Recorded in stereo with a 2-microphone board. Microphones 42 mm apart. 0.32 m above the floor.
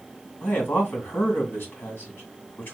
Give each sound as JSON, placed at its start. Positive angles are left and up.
{"t": 0.4, "sound": "a man speaking", "side_deg": 55, "distance_m": 2.5}